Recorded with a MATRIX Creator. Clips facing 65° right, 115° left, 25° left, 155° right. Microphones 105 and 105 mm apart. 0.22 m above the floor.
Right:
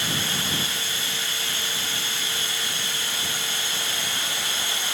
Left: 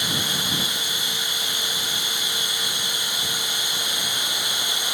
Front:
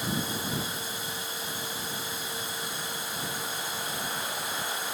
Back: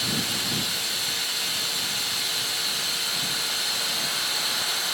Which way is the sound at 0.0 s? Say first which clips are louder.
Left 1 dB, even; 175° right.